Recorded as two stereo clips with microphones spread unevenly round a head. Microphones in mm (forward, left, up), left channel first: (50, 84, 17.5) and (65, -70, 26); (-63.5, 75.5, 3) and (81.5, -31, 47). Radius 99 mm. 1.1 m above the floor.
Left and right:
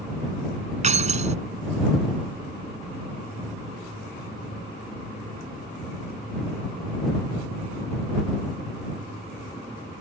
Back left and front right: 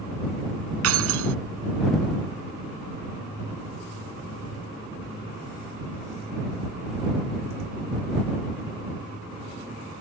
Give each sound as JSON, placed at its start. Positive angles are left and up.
{"t": 0.8, "sound": "keys jangling", "azimuth_deg": -40}